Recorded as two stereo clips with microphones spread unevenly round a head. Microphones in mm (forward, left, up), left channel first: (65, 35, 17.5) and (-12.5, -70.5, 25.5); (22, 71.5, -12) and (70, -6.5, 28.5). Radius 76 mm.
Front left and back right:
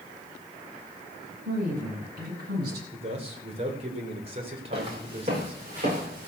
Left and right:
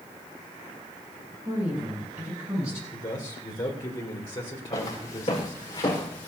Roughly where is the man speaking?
Behind.